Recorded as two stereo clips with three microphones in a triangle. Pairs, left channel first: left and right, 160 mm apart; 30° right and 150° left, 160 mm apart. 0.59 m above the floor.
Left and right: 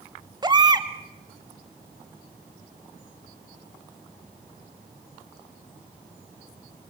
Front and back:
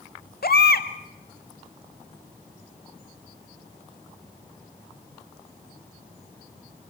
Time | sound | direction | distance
0.4 | a baby crying | 25° right | 1.0 m